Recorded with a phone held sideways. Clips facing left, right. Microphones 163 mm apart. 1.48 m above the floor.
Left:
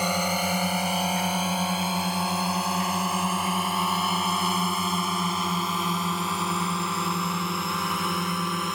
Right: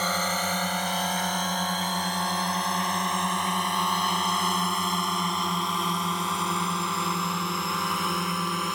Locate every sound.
0.0 s a drone: 10° left (ahead or behind); by 8.8 s centre (ahead or behind)